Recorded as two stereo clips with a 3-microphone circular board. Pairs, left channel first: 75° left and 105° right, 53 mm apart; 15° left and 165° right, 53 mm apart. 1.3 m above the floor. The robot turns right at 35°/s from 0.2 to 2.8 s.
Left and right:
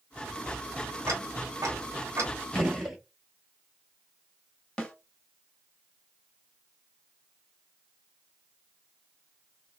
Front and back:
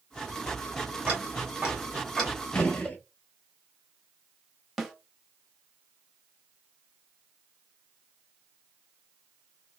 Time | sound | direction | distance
1.1 | ticking | 105° right | 1.6 m
2.5 | a gunshot | 35° right | 0.9 m
4.8 | a snare drum | 110° left | 0.9 m